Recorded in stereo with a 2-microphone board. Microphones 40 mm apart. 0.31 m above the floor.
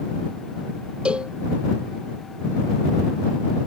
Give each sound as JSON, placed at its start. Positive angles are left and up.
{"t": 1.1, "sound": "a cowbell", "side_deg": -25}